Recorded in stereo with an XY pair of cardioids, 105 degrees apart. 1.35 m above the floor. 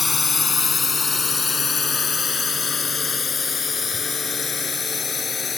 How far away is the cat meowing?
No cat meowing in this recording.